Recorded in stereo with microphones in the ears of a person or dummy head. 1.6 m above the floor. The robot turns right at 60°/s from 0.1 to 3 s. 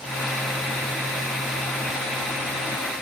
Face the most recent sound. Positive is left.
No sound to turn to.